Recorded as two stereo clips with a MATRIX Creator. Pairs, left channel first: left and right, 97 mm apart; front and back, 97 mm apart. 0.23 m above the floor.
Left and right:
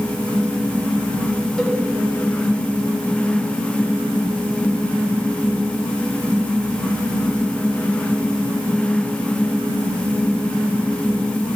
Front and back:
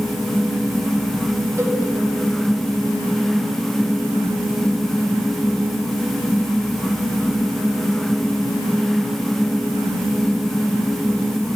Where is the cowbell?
165° left, 1.2 m.